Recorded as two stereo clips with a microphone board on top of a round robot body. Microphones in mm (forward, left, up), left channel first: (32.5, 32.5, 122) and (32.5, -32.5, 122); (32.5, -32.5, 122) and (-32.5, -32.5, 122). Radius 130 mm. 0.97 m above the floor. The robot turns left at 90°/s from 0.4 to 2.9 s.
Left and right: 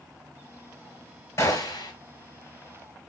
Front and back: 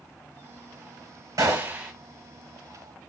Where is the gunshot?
140° left, 3 m; by 1.9 s 90° left, 3 m.